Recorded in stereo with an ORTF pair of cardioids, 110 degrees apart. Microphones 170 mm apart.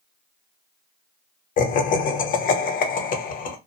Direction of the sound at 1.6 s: 55° left.